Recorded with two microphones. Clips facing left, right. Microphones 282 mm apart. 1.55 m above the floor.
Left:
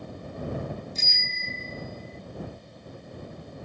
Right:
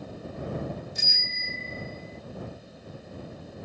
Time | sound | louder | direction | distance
0.9 | a bicycle bell | even | 15° right (ahead or behind) | ?